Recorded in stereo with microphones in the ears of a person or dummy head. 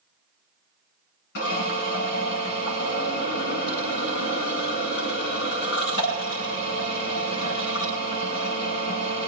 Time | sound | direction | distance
1.4 | a drill | 55° left (ahead or behind) | 8 m